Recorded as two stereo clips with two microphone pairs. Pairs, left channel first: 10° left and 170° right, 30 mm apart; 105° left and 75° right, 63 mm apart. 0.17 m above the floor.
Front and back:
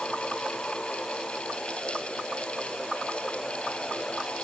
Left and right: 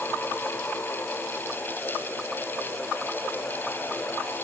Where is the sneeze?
No sneeze in this recording.